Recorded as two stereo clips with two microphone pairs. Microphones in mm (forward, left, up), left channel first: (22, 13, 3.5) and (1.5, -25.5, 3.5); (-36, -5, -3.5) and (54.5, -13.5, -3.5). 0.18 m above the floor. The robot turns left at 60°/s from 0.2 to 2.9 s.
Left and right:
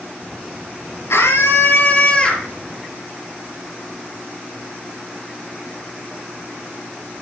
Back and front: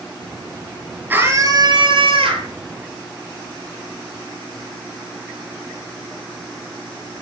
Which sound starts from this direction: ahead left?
A scream, at 1.1 s.